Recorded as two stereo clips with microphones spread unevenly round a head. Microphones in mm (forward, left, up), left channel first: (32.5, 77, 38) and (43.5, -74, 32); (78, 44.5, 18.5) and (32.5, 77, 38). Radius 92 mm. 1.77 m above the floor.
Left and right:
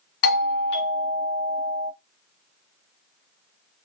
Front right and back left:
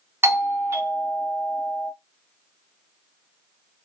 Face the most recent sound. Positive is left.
turn(degrees=90)